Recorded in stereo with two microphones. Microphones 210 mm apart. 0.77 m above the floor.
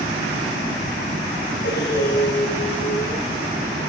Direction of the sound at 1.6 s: 65° left (ahead or behind).